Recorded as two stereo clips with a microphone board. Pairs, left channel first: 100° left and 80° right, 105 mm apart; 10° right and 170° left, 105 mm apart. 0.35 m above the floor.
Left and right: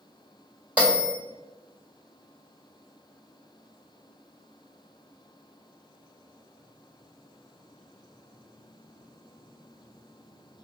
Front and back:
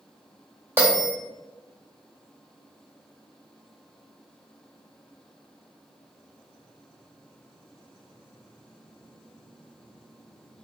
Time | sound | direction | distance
0.8 | a bell | 140° right | 1.7 m